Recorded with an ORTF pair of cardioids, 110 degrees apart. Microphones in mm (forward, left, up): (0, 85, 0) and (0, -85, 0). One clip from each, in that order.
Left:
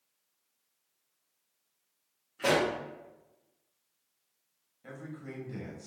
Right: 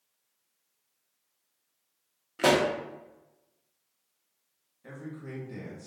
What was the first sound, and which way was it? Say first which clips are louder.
A pop: right 4 dB; 55° right.